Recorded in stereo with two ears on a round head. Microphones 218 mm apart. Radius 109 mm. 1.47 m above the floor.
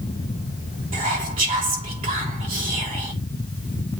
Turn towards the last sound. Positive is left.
turn(degrees=-25)  # may be behind; listen again after turning